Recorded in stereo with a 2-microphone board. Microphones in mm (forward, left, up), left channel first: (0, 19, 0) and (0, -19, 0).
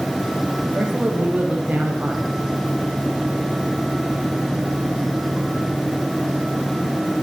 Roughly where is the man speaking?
Right.